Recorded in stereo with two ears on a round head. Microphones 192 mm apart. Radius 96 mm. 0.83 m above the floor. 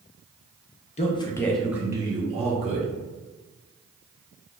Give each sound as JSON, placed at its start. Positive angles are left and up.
{"t": 1.0, "sound": "a man speaking", "side_deg": 30, "distance_m": 0.7}